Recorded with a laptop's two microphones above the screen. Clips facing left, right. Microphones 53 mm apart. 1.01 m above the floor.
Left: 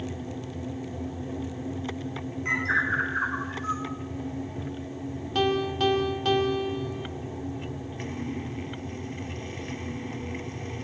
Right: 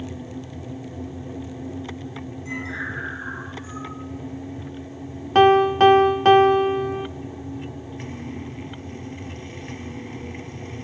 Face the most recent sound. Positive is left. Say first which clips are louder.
# right 12 dB
turn(degrees=-50)  # may be behind; listen again after turning